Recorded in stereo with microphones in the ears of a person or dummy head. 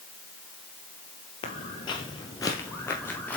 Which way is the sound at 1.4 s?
30° left (ahead or behind).